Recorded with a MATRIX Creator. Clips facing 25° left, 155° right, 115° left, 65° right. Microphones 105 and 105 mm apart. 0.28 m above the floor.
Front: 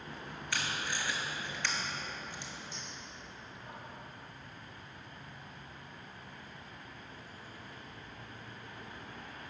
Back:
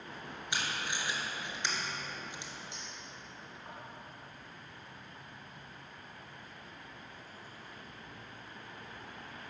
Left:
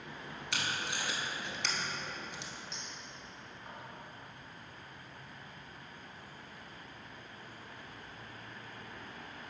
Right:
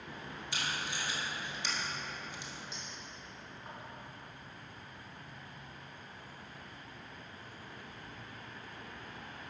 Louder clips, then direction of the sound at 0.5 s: Even, left 1 dB; 130° left.